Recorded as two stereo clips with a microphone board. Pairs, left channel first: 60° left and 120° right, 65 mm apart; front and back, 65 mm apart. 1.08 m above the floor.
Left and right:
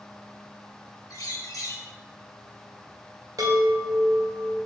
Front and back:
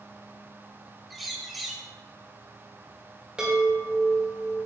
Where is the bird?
90° left, 1.3 m.